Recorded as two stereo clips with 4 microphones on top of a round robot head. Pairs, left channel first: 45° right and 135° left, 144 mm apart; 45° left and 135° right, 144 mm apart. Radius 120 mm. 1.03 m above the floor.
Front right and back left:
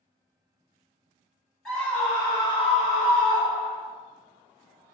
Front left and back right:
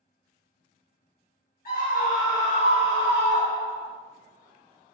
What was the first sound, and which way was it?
A scream, 45° left.